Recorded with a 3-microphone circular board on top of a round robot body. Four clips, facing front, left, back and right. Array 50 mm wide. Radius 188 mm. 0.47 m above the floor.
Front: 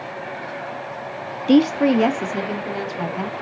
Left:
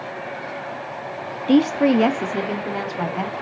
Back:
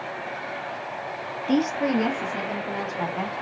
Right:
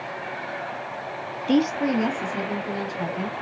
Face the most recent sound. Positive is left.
turn(degrees=80)